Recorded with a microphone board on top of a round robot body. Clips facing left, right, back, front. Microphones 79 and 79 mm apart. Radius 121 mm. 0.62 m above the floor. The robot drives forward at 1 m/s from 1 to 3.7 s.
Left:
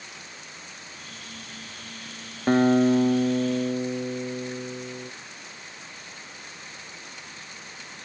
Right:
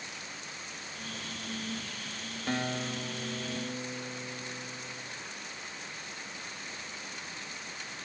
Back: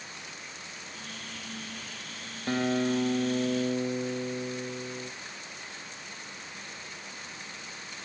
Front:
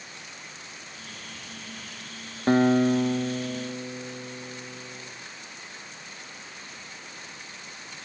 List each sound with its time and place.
2.5 s a guitar: 45° left, 1.3 m; by 5.1 s 120° left, 1.2 m